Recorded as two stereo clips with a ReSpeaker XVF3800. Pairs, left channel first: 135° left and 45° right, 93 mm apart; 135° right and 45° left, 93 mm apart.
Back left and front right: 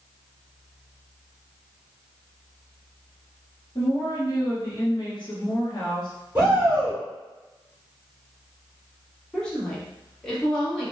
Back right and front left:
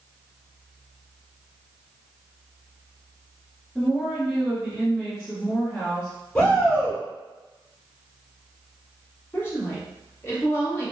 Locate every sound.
3.8 s a woman speaking: 135° left, 1.2 m
6.3 s a shout: 70° right, 1.1 m
9.3 s a woman speaking: 155° right, 1.2 m